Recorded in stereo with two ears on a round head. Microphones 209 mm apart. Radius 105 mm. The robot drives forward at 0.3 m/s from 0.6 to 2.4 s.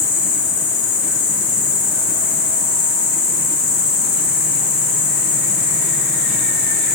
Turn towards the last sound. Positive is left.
turn(degrees=60)  # may be behind; listen again after turning